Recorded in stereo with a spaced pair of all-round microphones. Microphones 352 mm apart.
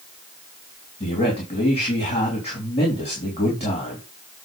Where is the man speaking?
15° left (ahead or behind), 3 m.